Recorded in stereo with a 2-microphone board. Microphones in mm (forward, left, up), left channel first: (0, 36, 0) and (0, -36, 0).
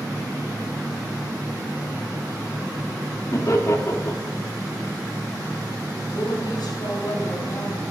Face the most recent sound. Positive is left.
turn(degrees=85)